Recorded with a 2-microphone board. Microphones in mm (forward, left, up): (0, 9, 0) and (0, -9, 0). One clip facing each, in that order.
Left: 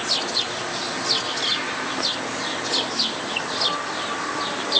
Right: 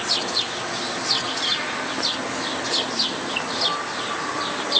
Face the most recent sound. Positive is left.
No sound to turn to.